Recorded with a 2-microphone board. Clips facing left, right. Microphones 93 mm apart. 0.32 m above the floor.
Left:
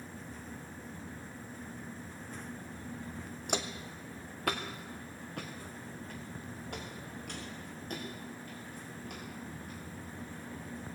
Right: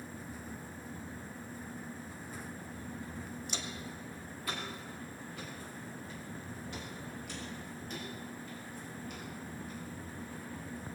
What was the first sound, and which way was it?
Footsteps, 65° left (ahead or behind).